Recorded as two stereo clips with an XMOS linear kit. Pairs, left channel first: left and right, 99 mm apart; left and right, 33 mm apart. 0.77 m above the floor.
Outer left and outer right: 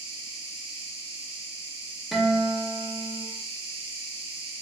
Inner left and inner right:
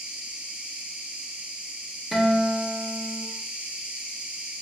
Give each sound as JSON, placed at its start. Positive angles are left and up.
{"t": 0.0, "sound": "an insect", "side_deg": -80, "distance_m": 1.3}
{"t": 2.1, "sound": "a guitar", "side_deg": -5, "distance_m": 0.7}